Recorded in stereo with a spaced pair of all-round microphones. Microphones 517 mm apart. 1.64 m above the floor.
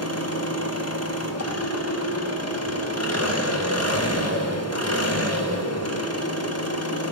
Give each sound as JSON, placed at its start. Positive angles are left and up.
{"t": 0.0, "sound": "an engine running", "side_deg": 30, "distance_m": 1.2}